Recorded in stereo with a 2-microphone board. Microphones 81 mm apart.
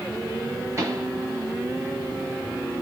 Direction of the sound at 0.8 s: 40° right (ahead or behind).